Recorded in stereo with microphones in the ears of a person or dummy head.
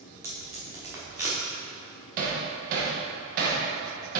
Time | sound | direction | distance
0.2 | tape being pulled | 10° right (ahead or behind) | 1.3 m
2.2 | hammering | 50° right (ahead or behind) | 1.3 m